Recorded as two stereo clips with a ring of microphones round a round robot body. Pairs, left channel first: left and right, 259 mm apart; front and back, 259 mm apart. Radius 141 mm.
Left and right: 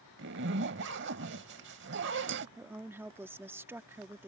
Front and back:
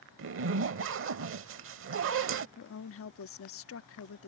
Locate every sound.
0.2 s a zipper: 140° right
2.6 s a woman speaking: 10° right